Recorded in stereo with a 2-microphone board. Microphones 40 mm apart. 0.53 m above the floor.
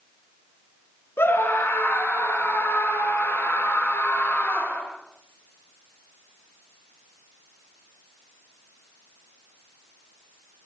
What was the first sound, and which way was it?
A scream, 85° left.